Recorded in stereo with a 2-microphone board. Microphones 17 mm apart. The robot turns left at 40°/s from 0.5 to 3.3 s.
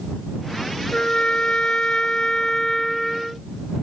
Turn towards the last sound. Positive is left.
turn(degrees=10)